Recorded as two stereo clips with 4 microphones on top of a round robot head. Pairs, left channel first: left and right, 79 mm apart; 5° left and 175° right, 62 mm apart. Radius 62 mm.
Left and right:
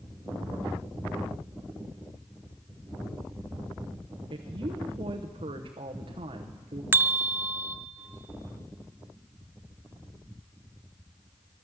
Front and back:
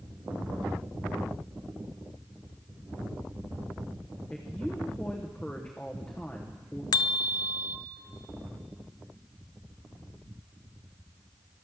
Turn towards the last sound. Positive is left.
turn(degrees=-25)